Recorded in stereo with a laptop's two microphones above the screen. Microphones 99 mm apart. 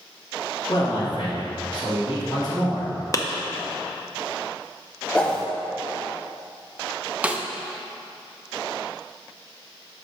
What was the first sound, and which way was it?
A man speaking, 55° left (ahead or behind).